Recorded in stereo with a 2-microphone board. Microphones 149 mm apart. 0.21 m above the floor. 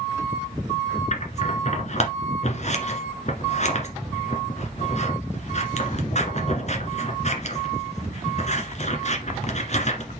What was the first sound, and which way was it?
Scissors, 50° left (ahead or behind).